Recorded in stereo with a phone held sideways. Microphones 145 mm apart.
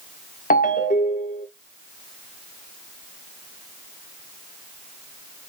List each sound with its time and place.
0.5 s a ringtone: 80° left, 1.0 m